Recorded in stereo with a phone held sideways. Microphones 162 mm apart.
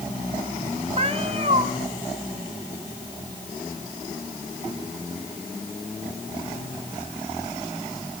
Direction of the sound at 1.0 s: 40° right (ahead or behind).